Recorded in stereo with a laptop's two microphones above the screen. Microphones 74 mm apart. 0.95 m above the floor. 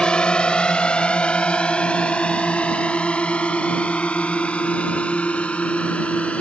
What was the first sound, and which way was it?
A drone, 10° left (ahead or behind).